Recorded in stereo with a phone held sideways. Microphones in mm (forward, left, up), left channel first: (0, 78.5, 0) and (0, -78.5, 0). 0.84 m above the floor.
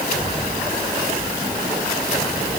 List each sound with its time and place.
Only background noise.